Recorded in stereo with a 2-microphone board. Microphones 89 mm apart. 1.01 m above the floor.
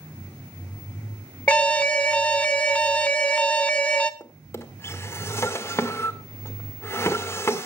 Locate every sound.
1.5 s an alarm: 15° left (ahead or behind), 0.6 m
4.2 s a drawer: 25° left (ahead or behind), 1.4 m